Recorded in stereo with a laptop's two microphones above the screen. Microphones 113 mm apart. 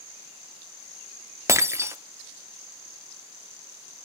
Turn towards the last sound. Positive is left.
turn(degrees=-25)  # may be behind; listen again after turning